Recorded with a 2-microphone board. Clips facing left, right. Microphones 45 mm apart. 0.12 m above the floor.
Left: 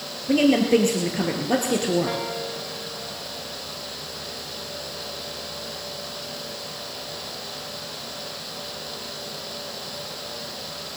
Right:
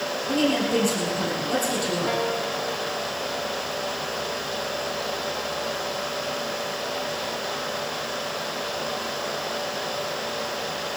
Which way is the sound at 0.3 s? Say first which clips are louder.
Left 5 dB; 45° left (ahead or behind).